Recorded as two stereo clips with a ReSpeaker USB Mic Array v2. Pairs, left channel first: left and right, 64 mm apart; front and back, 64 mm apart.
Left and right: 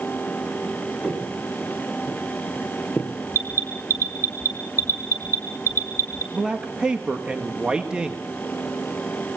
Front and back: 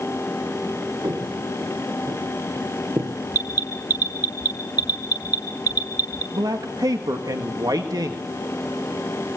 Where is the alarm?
120° left, 3 m.